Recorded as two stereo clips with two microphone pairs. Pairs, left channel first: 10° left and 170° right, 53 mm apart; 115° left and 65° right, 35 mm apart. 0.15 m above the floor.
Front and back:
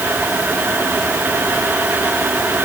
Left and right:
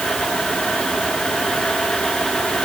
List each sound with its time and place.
Only background noise.